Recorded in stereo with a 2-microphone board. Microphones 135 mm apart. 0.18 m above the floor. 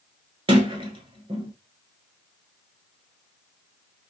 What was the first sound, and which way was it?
A sliding door, 40° right (ahead or behind).